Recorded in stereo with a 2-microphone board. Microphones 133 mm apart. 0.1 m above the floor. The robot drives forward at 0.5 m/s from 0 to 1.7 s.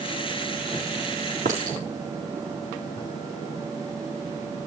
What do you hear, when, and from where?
1.4 s a clink: 85° right, 5 m